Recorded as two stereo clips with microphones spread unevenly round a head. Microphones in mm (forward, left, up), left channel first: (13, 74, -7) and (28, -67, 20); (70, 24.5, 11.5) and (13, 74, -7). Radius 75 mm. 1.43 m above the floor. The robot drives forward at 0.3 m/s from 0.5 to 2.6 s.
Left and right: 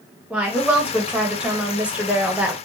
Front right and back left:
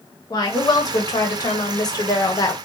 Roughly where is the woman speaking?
Ahead.